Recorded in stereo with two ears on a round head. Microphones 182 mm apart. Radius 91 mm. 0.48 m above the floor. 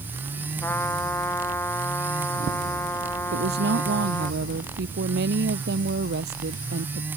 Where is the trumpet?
10° left (ahead or behind).